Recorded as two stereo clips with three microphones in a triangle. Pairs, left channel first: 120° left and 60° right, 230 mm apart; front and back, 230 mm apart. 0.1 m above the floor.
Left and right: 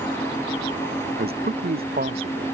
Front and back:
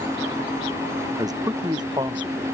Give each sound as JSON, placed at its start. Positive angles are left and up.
{"t": 1.2, "sound": "a man speaking", "azimuth_deg": -105}